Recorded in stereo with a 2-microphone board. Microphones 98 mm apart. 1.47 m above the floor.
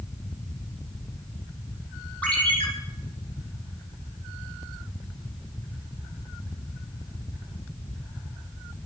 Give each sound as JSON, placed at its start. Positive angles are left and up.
{"t": 2.2, "sound": "a ringtone", "side_deg": 15, "distance_m": 6.0}